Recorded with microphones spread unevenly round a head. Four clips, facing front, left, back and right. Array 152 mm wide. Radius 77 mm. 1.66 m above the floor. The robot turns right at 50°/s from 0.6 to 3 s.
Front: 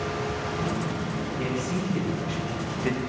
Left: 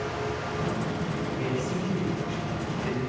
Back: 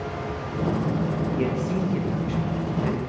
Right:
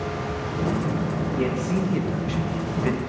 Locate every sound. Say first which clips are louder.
1.4 s a man speaking: right 7 dB, back 2 dB; 125° right, 1.4 m; by 3.0 s 45° right, 1.4 m